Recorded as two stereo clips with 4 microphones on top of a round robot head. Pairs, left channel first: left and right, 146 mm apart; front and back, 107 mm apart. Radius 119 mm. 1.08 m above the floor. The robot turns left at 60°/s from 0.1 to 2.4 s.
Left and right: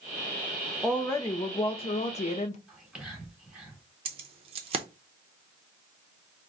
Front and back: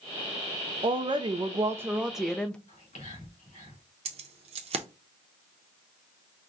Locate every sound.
0.8 s a woman speaking: 175° left, 0.5 m; by 2.6 s 80° left, 0.5 m
2.7 s whispering: 5° right, 3.5 m
4.0 s keys jangling: 145° right, 0.5 m